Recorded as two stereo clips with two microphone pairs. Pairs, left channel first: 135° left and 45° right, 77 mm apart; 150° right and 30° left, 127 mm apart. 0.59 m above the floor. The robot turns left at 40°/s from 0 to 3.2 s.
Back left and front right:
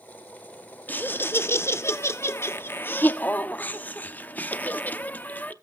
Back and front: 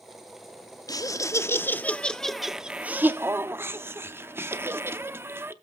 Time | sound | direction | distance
0.9 | laughter | 175° right | 0.8 m